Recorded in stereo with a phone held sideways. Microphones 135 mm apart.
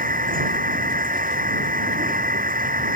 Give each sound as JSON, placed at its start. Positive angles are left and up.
{"t": 0.0, "sound": "a machine running", "side_deg": -85}